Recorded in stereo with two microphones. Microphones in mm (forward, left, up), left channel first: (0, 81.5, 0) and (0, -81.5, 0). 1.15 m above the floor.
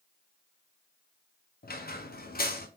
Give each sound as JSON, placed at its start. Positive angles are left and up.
{"t": 1.6, "sound": "a squeak", "side_deg": 70, "distance_m": 0.5}